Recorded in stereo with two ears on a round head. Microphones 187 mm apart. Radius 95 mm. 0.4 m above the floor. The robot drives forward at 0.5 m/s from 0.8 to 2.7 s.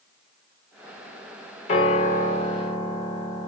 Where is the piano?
30° left (ahead or behind), 1.2 m; by 3.5 s 25° left (ahead or behind), 1.4 m.